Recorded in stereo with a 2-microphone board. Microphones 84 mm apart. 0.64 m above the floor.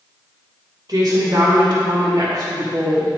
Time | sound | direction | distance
0.9 | a woman speaking | 60° right (ahead or behind) | 3 m